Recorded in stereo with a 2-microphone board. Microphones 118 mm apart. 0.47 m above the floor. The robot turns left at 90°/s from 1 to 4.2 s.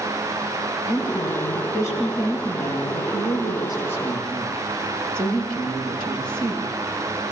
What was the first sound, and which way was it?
A woman speaking, 100° left.